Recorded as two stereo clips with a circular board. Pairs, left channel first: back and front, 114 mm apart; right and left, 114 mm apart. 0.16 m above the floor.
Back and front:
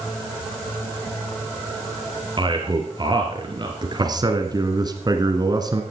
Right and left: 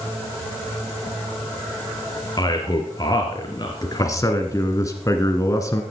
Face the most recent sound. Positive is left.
turn(degrees=-40)